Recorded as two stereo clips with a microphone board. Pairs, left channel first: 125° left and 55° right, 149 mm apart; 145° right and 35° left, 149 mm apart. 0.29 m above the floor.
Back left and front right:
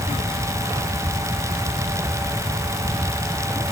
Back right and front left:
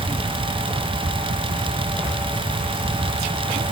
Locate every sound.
Only background noise.